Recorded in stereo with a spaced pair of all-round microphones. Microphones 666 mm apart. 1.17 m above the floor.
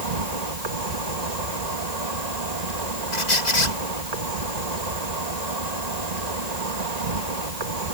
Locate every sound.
0.0 s an insect: 70° right (ahead or behind)
3.1 s a squeak: 80° left